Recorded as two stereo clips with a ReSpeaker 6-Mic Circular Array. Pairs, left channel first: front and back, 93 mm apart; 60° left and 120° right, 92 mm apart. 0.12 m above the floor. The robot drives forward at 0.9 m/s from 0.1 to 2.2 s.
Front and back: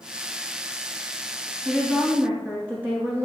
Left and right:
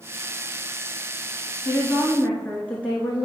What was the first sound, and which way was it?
A woman speaking, 85° left.